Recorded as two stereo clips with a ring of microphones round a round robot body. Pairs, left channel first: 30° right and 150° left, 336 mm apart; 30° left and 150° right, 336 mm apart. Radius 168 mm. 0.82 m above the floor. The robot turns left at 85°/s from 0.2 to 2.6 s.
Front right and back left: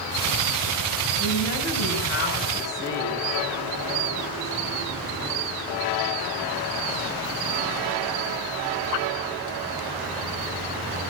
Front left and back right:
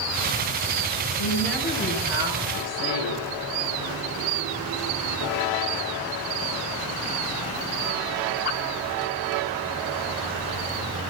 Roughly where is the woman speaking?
Ahead.